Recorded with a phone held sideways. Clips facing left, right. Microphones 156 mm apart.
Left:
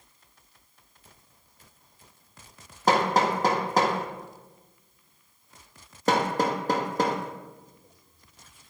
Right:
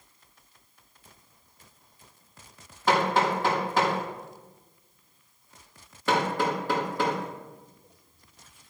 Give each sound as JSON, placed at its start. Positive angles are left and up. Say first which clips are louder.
{"t": 2.9, "sound": "hammering", "louder": "left 1 dB", "side_deg": 40, "distance_m": 1.8}